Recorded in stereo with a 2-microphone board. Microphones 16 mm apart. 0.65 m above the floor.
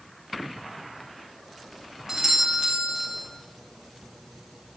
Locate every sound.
2.1 s a doorbell: 35° right (ahead or behind), 1.5 m